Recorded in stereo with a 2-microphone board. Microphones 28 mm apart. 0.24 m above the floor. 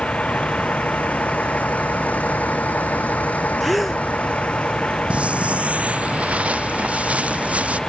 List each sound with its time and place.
0.0 s a vehicle: 45° left (ahead or behind); by 7.9 s 25° left (ahead or behind)
3.6 s a gasp: 5° right (ahead or behind)
5.1 s footsteps: 60° right (ahead or behind)